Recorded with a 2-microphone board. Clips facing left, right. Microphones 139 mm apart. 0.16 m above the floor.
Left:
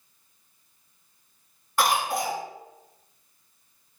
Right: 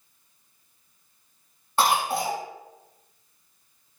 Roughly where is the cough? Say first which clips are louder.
Right 1 dB; right.